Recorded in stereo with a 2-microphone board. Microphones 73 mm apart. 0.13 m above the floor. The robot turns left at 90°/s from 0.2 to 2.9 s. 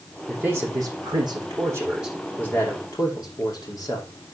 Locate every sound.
0.3 s a man speaking: 15° right, 7.5 m; by 4.1 s 110° left, 7.5 m